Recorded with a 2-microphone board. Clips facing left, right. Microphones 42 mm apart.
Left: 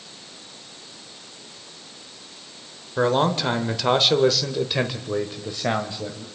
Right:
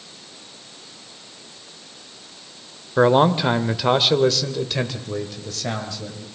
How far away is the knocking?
No knocking in this recording.